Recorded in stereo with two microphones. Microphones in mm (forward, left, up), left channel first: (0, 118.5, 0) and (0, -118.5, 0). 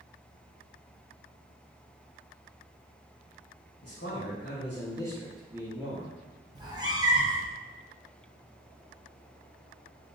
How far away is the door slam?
No door slam in this recording.